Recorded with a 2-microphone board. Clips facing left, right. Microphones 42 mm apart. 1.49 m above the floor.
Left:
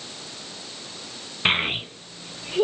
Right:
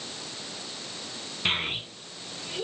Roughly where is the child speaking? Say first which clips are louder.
Left 6 dB; left.